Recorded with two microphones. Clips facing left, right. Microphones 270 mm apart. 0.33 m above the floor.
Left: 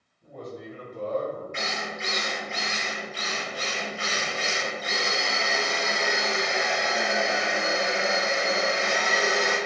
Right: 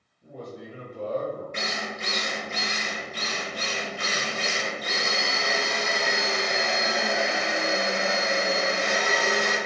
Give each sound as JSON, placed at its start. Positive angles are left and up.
{"t": 0.2, "sound": "a man speaking", "side_deg": -10, "distance_m": 1.6}
{"t": 1.5, "sound": "a drill", "side_deg": -35, "distance_m": 0.8}